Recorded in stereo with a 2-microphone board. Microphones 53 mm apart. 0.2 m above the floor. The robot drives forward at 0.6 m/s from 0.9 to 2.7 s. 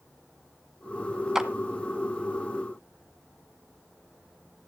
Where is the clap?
10° right (ahead or behind), 1.3 m.